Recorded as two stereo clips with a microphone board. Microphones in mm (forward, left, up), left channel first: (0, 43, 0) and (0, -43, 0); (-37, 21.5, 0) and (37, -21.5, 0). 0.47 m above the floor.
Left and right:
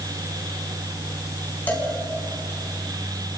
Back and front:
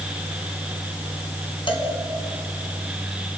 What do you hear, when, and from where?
1.7 s a cowbell: 160° left, 4 m